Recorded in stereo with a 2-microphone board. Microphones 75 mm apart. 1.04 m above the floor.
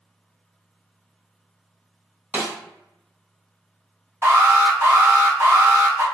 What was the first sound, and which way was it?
A snare drum, 20° right (ahead or behind).